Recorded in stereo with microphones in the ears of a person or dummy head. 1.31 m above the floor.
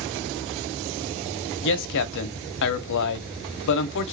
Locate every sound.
1.6 s a man speaking: 65° left (ahead or behind), 0.6 m